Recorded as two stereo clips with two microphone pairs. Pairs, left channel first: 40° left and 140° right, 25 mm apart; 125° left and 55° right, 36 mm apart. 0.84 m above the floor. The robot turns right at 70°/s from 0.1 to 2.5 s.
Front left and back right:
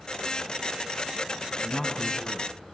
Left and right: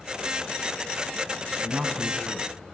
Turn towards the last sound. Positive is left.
turn(degrees=15)